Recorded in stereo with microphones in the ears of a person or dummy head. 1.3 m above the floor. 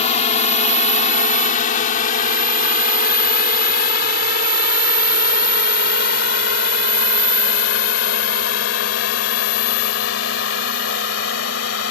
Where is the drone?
35° left (ahead or behind); by 11.9 s 70° left (ahead or behind).